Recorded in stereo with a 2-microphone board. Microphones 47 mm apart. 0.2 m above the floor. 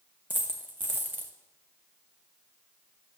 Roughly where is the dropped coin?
Right.